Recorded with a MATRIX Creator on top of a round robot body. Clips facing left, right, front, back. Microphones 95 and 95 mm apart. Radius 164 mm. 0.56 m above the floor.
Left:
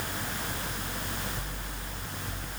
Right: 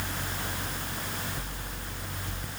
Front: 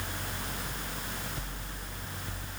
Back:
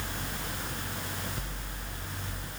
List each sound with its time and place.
Only background noise.